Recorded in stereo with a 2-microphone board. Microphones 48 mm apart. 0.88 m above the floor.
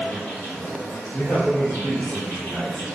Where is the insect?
40° left (ahead or behind), 1.8 m.